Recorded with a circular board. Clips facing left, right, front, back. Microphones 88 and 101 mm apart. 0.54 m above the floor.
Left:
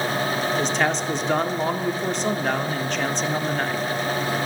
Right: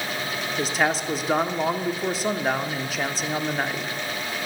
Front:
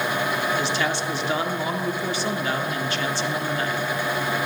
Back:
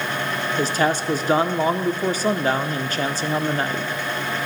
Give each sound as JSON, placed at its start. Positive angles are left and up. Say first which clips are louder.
{"t": 0.6, "sound": "a man speaking", "louder": "right 3 dB, back 4 dB", "azimuth_deg": -175, "distance_m": 0.8}